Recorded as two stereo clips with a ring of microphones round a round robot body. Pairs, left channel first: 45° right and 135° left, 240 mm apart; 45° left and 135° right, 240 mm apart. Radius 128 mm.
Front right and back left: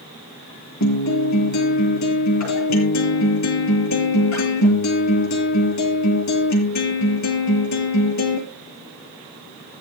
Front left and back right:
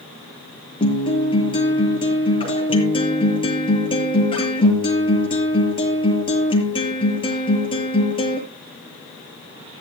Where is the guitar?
25° right, 6.5 m.